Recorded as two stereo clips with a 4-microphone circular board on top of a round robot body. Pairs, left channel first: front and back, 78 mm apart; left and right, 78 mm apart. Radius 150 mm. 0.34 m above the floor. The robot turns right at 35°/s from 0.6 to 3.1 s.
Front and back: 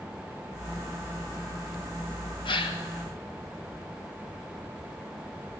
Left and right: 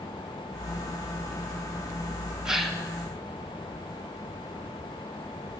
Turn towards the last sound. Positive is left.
turn(degrees=15)